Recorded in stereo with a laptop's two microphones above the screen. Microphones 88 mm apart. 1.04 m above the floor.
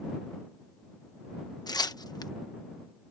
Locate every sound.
1.7 s tearing paper: 50° left (ahead or behind)